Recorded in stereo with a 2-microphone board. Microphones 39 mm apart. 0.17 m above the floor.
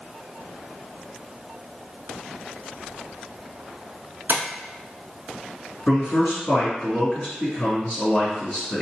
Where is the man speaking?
40° left (ahead or behind), 2.0 m.